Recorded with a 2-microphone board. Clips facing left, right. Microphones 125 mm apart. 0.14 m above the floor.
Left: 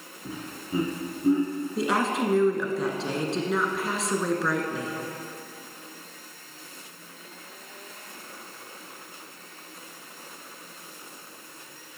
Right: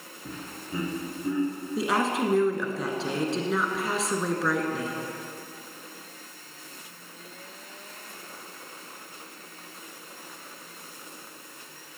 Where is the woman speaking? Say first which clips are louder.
Even; centre (ahead or behind), 1.4 m.